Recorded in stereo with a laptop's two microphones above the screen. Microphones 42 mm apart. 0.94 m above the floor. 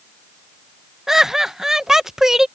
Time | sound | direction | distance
1.1 | laughter | 10° right (ahead or behind) | ?